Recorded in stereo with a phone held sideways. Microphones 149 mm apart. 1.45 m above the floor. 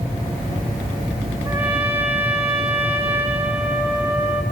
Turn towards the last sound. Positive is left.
turn(degrees=-10)  # may be behind; listen again after turning